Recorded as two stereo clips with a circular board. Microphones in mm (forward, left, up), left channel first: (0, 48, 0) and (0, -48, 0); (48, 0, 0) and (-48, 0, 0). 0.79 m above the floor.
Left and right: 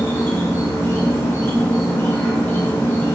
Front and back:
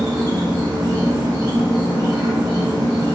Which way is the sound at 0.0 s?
145° left.